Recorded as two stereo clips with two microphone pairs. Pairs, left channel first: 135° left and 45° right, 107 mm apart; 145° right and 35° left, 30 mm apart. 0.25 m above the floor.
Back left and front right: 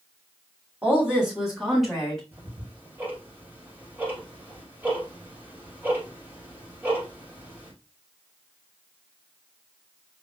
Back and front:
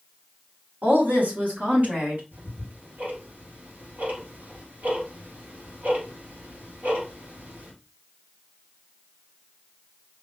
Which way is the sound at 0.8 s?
25° left.